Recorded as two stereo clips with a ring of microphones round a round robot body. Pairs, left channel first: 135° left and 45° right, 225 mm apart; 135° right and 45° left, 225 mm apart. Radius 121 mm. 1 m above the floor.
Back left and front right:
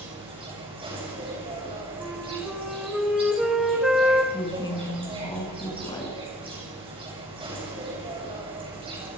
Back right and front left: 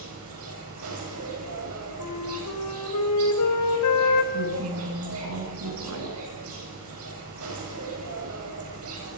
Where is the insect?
25° left, 9.5 m.